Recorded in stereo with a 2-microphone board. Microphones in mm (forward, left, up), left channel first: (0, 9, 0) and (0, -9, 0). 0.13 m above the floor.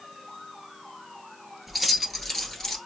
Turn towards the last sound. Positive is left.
turn(degrees=20)  # may be behind; listen again after turning